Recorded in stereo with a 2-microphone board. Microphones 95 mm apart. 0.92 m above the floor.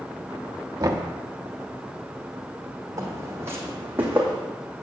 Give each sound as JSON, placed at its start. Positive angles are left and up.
{"t": 0.8, "sound": "knocking", "side_deg": -40, "distance_m": 1.1}
{"t": 3.0, "sound": "footsteps", "side_deg": -35, "distance_m": 3.0}